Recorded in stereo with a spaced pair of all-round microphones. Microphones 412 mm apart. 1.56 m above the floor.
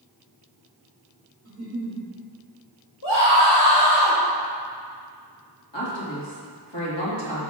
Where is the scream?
80° left, 1.7 m.